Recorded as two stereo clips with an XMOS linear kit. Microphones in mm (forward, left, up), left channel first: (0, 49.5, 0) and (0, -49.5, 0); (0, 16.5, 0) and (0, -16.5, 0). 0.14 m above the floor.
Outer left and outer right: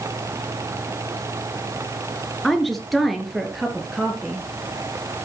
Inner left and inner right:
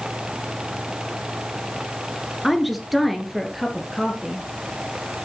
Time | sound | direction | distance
2.4 | a woman speaking | centre (ahead or behind) | 2 m